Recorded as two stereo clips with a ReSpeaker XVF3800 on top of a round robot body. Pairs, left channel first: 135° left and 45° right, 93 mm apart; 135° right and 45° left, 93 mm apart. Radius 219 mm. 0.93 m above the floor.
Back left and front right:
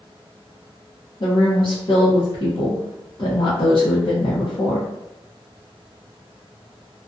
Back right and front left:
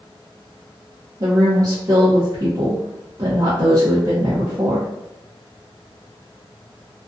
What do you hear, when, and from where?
1.2 s a woman speaking: 95° left, 0.7 m